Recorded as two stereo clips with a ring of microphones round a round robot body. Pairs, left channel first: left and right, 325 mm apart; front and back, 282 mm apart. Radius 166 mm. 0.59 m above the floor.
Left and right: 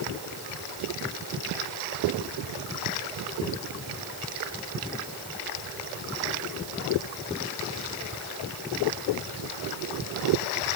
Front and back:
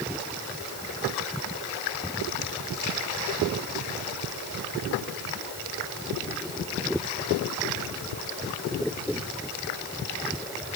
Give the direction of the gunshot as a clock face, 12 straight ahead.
I don't hear a gunshot.